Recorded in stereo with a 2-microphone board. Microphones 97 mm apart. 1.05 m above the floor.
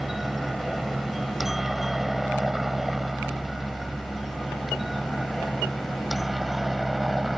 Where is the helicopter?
Centre (ahead or behind).